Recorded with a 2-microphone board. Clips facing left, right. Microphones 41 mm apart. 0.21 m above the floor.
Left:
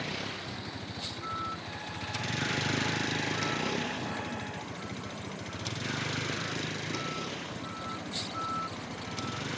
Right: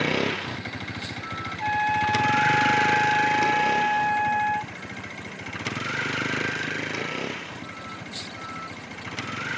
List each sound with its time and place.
0.0 s a vehicle: 85° right
1.6 s a trumpet: 75° right (ahead or behind)